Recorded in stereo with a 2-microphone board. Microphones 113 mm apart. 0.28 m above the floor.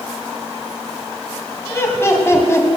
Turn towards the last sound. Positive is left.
turn(degrees=25)  # may be behind; listen again after turning